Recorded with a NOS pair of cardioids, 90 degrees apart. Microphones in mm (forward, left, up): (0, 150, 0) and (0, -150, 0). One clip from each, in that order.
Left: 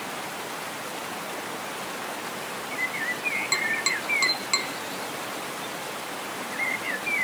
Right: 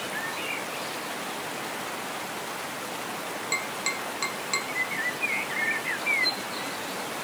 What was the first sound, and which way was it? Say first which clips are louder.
Tapping: left 2 dB; 20° left.